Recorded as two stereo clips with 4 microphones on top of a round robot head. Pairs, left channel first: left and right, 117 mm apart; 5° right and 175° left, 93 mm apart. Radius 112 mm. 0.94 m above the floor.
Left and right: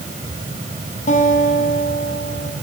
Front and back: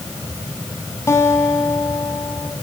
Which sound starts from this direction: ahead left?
A guitar, at 1.1 s.